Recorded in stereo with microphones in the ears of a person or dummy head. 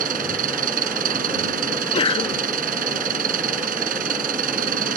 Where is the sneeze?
25° left (ahead or behind).